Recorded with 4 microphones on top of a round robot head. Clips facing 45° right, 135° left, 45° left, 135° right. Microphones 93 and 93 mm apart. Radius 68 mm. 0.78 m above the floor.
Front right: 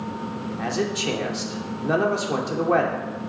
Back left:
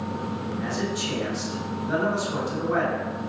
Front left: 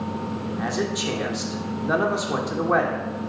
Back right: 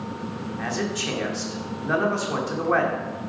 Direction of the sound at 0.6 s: 25° right.